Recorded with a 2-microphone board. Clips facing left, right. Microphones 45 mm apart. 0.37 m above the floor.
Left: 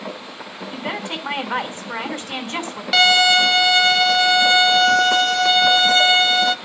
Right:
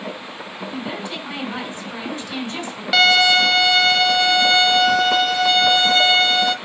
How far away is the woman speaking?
About 3.5 m.